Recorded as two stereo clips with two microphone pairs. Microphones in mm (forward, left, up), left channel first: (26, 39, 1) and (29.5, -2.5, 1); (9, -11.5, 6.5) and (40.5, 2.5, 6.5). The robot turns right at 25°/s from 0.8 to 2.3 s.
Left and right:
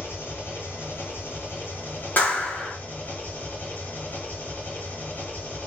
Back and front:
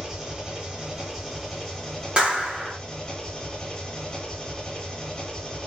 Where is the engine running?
95° left, 1.5 m; by 5.7 s 130° left, 1.5 m.